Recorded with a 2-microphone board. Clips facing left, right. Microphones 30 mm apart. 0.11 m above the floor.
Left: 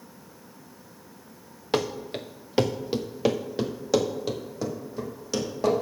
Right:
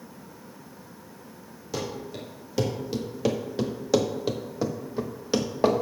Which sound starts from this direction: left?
Running footsteps, at 1.7 s.